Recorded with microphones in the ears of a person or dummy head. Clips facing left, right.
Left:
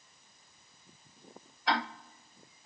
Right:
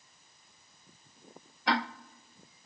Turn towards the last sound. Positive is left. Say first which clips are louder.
# right 2 dB
turn(degrees=-55)  # may be behind; listen again after turning